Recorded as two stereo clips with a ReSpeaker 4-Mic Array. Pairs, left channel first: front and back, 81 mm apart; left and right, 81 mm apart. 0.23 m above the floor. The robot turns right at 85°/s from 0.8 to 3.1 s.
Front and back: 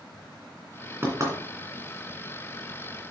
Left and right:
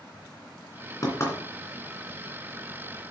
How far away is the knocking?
About 2.5 m.